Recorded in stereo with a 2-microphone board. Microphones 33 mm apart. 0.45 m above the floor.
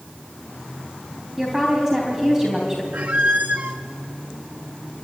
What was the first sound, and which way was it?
A woman speaking, 10° right (ahead or behind).